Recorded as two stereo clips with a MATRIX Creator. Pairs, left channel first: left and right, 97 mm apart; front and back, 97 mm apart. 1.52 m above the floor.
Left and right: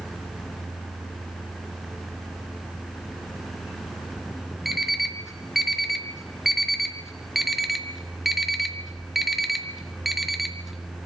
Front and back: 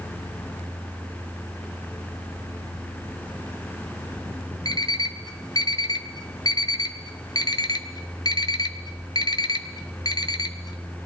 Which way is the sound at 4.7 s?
5° right.